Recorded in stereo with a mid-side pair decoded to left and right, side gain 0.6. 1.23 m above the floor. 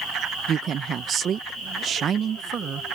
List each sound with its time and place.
0.5 s a woman speaking: 45° right